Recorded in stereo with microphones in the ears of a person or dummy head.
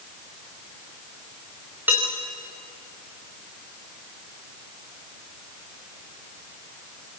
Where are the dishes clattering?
10° right (ahead or behind), 3.5 m.